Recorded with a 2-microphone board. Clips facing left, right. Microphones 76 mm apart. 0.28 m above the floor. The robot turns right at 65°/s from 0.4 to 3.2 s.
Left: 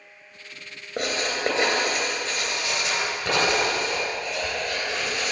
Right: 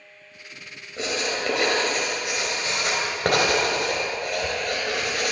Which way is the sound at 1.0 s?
65° left (ahead or behind).